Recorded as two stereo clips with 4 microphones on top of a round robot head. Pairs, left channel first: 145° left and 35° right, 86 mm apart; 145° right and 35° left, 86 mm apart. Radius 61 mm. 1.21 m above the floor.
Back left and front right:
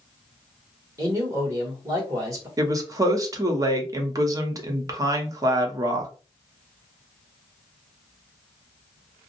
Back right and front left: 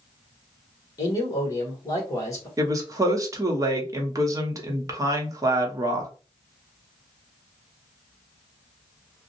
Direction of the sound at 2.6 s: 5° right.